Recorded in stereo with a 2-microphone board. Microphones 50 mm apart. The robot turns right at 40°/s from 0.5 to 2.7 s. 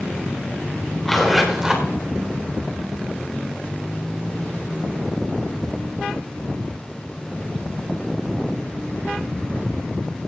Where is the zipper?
170° left, 3 m; by 1.9 s 160° right, 3 m.